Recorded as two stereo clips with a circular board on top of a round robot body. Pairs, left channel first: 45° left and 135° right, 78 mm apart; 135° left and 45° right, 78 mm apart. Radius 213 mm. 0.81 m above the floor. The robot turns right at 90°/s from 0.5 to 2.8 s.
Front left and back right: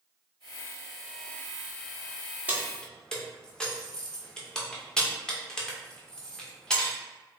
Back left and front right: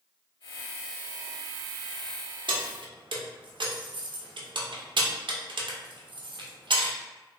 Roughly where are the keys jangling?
Ahead right.